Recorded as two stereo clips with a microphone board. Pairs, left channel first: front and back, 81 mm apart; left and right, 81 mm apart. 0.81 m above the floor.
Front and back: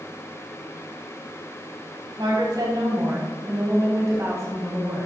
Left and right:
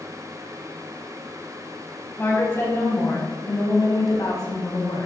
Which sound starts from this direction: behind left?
A woman speaking, at 2.2 s.